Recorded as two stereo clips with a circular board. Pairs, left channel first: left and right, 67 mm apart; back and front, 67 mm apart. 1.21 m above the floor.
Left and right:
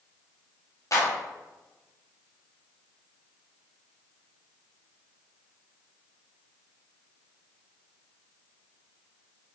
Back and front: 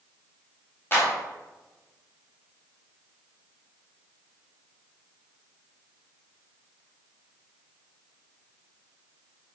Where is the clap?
125° left, 2.5 m.